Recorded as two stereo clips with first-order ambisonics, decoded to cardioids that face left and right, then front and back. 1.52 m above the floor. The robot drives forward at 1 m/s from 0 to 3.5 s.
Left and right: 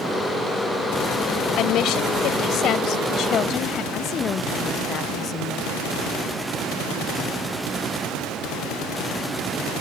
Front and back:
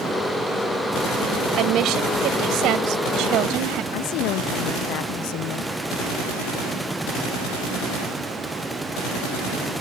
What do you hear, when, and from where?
1.6 s a woman speaking: 135° left; by 3.8 s 140° left
3.9 s a woman speaking: 30° left